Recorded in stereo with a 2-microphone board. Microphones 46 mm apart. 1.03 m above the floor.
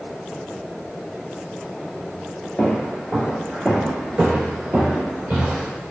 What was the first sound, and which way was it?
Footsteps, 25° left (ahead or behind).